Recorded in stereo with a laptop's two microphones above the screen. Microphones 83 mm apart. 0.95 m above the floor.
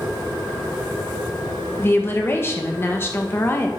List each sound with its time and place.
1.8 s a woman speaking: 30° left (ahead or behind), 1.0 m